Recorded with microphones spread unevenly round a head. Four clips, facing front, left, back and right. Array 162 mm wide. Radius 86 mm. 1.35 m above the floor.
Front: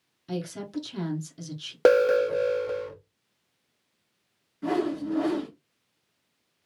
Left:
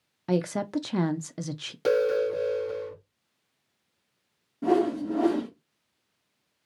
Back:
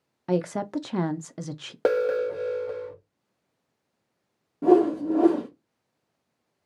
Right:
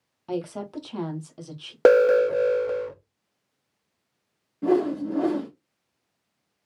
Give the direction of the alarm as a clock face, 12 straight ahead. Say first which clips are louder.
Right 7 dB, front 4 dB; 2 o'clock.